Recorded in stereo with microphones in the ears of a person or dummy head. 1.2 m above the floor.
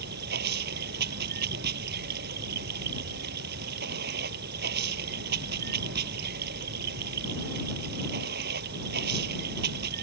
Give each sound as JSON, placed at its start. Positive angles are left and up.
{"t": 0.0, "sound": "running water", "side_deg": -55}